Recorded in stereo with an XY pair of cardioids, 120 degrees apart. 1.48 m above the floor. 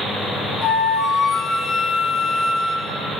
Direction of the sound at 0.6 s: 45° left.